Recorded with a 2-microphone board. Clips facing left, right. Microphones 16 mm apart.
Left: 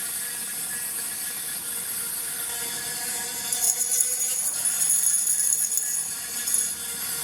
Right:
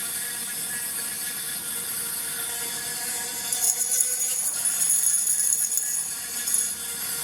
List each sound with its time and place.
0.0 s an insect: 15° right (ahead or behind), 3.5 m
3.5 s a rattle: 15° left (ahead or behind), 1.4 m